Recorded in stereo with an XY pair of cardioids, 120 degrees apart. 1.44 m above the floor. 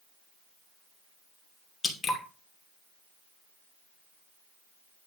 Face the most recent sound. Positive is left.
turn(degrees=30)